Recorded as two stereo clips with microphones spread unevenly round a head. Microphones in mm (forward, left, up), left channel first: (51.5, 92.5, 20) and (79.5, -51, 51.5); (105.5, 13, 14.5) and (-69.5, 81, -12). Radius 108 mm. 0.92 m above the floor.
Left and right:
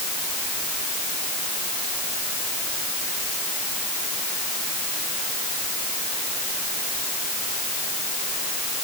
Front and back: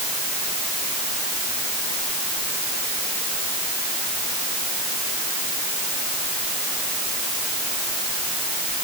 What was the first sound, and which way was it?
Only background noise.